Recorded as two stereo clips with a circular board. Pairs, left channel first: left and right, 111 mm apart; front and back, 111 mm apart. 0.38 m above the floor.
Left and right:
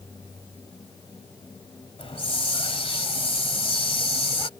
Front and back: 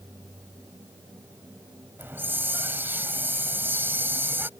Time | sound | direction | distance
2.0 | a hiss | 110° left | ?